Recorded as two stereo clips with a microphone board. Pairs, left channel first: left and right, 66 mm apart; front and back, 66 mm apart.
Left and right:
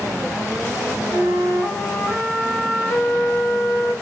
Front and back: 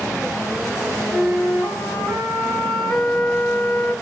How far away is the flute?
About 1.6 m.